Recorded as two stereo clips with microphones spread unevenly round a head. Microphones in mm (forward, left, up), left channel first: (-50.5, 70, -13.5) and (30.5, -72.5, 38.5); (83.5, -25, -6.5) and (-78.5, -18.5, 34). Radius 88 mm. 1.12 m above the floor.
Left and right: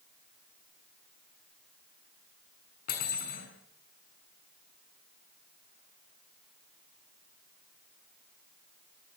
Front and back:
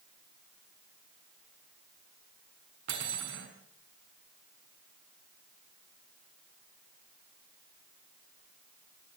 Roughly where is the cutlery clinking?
Behind left.